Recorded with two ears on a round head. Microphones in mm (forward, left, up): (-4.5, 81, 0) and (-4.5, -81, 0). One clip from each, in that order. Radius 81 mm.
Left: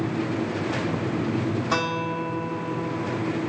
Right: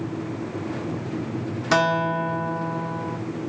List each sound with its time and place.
1.7 s a guitar: 50° right (ahead or behind), 1.0 m